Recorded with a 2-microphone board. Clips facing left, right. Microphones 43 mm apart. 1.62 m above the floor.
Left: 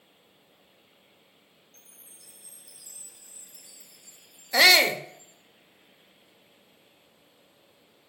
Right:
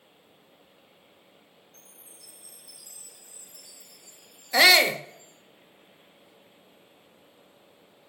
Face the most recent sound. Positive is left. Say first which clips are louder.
# right 1 dB
turn(degrees=0)  # may be behind; listen again after turning